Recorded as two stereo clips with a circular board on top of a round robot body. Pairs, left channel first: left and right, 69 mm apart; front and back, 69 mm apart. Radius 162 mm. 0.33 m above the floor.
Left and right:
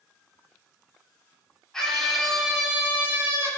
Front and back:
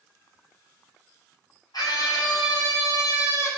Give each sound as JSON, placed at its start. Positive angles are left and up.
{"t": 1.7, "sound": "a scream", "azimuth_deg": 10, "distance_m": 4.0}